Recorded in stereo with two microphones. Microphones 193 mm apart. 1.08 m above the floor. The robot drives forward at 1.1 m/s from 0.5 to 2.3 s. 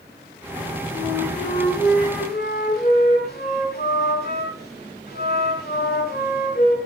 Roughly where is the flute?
Left.